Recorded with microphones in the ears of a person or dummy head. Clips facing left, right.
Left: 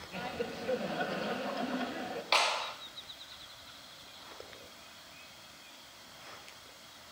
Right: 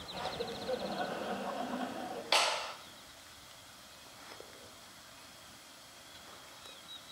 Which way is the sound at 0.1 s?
30° left (ahead or behind).